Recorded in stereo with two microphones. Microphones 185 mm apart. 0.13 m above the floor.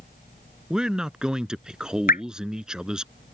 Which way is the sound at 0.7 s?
5° right (ahead or behind).